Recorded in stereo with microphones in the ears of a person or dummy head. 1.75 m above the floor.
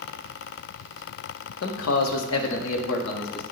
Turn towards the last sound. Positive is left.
turn(degrees=50)  # may be behind; listen again after turning